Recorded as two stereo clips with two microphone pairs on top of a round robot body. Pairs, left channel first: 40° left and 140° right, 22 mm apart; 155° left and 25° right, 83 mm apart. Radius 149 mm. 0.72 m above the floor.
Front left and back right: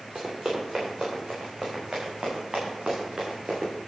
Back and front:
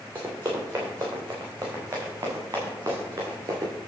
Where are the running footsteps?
95° right, 4.5 m; by 3.7 s 80° right, 5.5 m.